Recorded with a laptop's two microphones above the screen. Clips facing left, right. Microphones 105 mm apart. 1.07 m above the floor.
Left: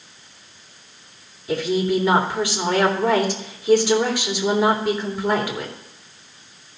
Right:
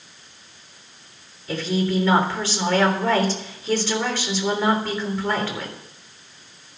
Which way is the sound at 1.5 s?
15° left (ahead or behind).